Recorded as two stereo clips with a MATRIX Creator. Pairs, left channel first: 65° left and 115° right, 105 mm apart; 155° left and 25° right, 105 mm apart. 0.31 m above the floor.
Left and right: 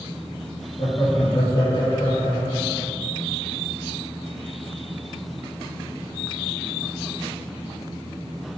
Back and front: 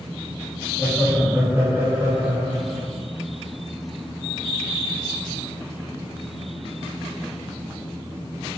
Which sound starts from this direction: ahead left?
Laughter, at 0.8 s.